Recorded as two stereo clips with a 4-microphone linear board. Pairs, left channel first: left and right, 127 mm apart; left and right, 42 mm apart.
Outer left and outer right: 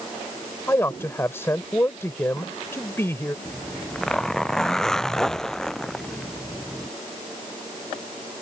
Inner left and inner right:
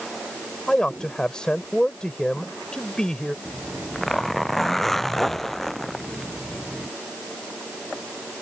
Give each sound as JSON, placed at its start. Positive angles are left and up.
{"t": 0.7, "sound": "a man speaking", "side_deg": 20}
{"t": 3.5, "sound": "a zipper", "side_deg": 5}